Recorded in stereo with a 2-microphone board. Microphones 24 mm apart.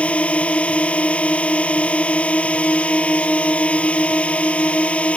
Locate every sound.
0.0 s a drone: 60° left (ahead or behind)